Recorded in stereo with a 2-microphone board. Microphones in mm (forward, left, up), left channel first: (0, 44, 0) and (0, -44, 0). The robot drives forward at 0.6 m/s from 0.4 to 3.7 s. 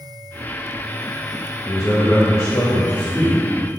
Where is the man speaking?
40° left (ahead or behind), 1.1 m; by 3.4 s 20° left (ahead or behind), 2.0 m.